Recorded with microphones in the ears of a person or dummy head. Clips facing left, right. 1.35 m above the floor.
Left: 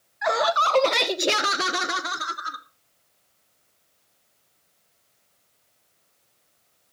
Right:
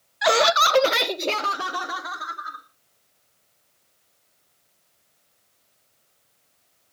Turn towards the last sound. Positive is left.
turn(degrees=50)  # may be behind; listen again after turning